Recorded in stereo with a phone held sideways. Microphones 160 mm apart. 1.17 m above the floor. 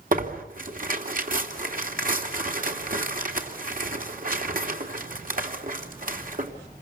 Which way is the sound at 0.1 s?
55° right (ahead or behind).